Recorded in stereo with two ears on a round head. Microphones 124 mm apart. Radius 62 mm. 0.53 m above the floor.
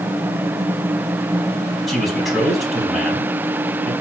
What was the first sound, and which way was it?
A man speaking, centre (ahead or behind).